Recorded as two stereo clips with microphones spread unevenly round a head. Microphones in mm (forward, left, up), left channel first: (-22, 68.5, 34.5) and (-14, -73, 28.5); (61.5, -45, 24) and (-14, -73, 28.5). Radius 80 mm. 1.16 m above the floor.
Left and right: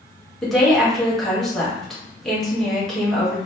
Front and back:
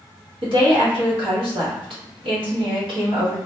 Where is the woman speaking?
Straight behind, 1.2 m.